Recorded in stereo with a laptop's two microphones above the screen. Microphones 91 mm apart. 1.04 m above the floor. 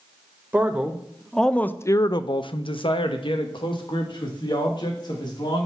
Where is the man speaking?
20° right (ahead or behind), 0.9 m; by 5.7 s 55° left (ahead or behind), 2 m.